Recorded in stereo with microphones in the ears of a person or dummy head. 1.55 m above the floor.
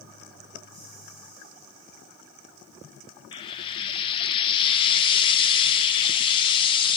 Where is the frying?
30° left (ahead or behind), 0.9 m.